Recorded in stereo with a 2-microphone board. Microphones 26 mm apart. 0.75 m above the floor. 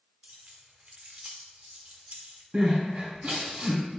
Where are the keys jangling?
60° right (ahead or behind), 1.1 m.